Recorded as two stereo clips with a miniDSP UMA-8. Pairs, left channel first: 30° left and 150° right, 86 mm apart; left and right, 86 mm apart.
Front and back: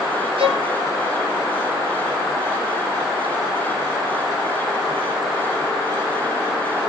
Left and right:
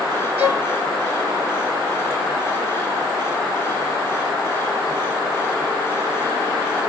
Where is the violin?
155° right, 2.0 m.